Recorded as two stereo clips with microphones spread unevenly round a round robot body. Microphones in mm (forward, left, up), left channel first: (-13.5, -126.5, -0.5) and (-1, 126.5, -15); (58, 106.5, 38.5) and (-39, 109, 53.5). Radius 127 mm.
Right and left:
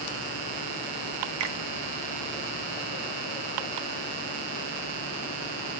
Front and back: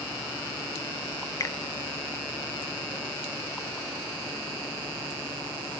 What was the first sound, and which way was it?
A finger snap, 55° left.